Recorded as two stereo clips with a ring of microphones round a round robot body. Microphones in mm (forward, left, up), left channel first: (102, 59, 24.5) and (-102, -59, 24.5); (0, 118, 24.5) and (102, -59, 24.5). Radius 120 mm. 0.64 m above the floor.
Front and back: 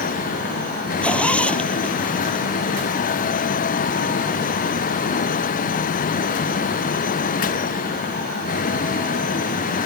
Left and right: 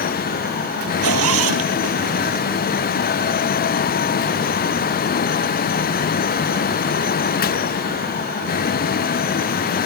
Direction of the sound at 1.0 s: 55° right.